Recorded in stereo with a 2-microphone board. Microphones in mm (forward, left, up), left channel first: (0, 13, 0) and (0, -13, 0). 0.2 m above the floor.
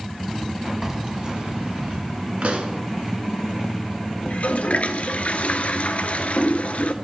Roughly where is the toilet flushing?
Left.